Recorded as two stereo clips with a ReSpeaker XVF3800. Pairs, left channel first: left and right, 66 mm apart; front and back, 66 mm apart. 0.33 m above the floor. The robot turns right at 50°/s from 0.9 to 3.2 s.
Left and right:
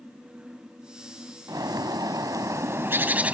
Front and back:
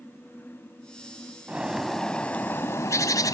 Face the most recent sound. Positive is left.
turn(degrees=-25)